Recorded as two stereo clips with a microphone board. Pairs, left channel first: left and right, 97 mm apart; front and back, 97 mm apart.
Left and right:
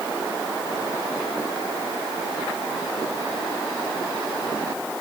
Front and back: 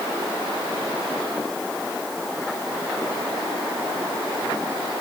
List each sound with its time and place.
Only background noise.